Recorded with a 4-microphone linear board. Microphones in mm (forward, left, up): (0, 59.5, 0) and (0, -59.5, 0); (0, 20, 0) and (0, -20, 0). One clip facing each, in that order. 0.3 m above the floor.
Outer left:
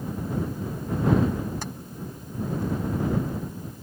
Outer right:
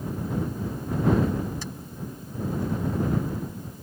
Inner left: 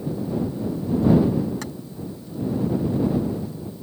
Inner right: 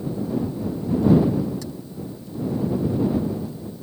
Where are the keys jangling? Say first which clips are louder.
Outer left 2 dB, inner left 1 dB; 60° left (ahead or behind).